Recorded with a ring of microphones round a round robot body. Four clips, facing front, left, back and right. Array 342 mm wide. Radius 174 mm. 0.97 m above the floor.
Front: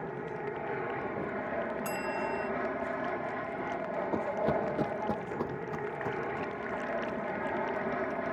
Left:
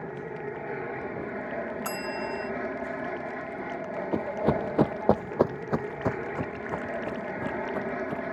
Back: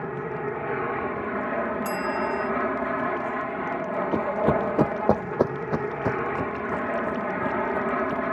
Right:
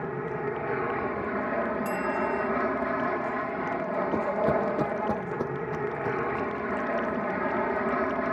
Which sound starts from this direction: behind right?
An aircraft, at 0.0 s.